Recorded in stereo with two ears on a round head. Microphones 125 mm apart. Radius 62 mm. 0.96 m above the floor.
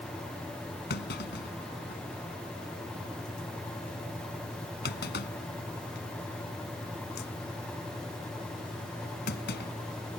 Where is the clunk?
85° left.